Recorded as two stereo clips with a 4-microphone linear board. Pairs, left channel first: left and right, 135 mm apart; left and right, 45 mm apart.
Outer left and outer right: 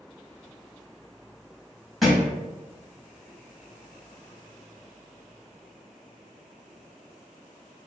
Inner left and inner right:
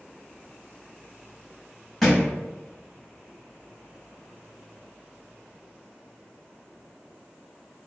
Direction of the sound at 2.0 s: Centre (ahead or behind).